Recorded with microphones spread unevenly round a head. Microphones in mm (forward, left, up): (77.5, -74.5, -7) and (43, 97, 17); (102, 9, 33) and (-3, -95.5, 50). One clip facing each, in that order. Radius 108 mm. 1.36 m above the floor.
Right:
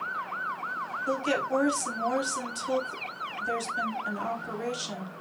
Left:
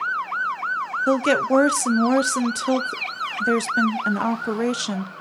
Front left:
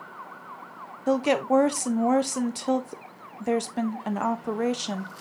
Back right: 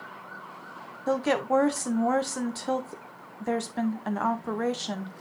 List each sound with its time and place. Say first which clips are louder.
1.1 s a woman speaking: left 9 dB, front left 3 dB; 110° left, 0.6 m